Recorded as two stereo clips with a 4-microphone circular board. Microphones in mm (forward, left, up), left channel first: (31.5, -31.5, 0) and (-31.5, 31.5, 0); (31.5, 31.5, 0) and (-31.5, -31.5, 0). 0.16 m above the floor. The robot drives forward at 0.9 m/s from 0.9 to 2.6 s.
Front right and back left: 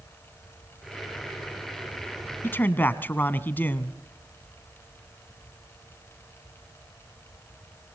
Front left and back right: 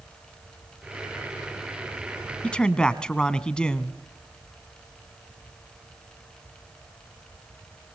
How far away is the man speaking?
About 1.1 m.